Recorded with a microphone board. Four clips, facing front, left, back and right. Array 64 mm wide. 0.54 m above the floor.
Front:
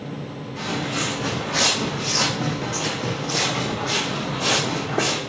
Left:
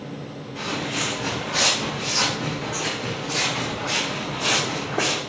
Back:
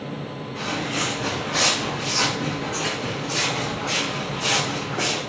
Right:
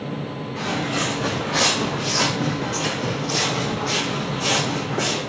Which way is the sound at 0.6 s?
85° right.